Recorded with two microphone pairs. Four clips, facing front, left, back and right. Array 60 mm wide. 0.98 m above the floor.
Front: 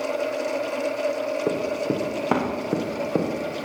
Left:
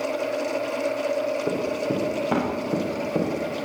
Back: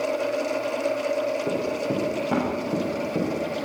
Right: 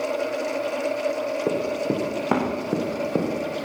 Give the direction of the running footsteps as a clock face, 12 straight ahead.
2 o'clock.